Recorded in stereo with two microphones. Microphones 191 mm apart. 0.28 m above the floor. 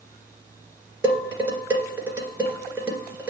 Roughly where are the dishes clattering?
Centre.